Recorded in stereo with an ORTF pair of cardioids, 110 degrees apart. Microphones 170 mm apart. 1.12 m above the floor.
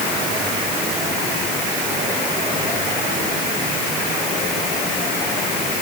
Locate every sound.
Only background noise.